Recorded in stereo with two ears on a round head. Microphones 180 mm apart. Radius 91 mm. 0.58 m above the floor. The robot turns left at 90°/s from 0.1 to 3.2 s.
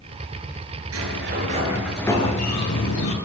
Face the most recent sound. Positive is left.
turn(degrees=65)